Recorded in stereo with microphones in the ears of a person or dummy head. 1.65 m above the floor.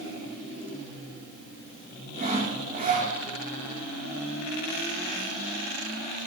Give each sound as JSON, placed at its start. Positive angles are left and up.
{"t": 2.2, "sound": "sawing", "side_deg": -40, "distance_m": 3.0}